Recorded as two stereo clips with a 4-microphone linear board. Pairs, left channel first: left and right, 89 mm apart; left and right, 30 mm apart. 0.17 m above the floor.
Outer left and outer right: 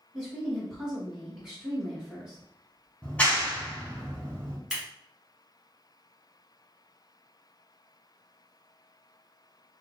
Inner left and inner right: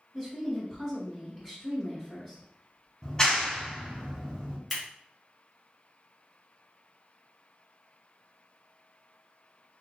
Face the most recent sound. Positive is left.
turn(degrees=-5)  # may be behind; listen again after turning